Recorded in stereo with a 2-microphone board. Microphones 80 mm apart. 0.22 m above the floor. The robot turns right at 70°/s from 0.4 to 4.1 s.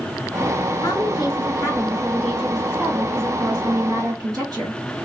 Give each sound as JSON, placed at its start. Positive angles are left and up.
{"t": 0.8, "sound": "a woman speaking", "azimuth_deg": 65, "distance_m": 2.5}